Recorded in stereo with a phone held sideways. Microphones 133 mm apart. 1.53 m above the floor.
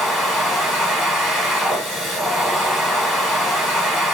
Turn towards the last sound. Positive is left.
turn(degrees=0)  # may be behind; listen again after turning